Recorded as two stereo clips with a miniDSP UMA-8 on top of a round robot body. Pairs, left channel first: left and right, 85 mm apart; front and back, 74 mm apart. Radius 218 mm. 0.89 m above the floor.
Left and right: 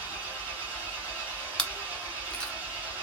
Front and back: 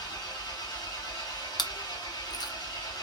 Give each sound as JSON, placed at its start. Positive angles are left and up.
{"t": 0.0, "sound": "an engine running", "azimuth_deg": -20, "distance_m": 2.0}
{"t": 1.6, "sound": "chewing", "azimuth_deg": 10, "distance_m": 1.1}